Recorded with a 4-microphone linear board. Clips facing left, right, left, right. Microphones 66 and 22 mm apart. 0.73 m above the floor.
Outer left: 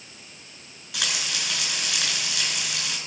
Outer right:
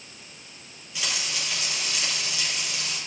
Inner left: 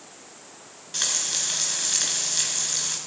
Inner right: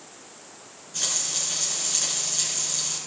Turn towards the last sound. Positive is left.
turn(degrees=75)  # may be behind; listen again after turning